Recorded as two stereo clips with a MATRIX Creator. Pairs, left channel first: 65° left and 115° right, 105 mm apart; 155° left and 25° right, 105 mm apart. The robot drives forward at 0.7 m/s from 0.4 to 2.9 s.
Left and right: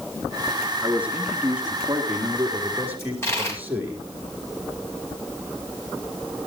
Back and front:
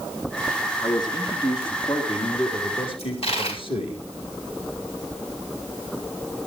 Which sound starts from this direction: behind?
A man speaking, at 0.8 s.